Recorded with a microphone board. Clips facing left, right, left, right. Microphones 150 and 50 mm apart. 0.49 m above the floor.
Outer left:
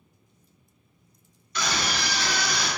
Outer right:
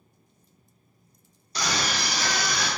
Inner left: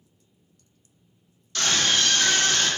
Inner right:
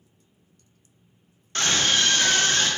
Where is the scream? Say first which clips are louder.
Even, inner right 1 dB; 35° right (ahead or behind), 0.9 m; by 2.7 s 45° right (ahead or behind), 1.5 m.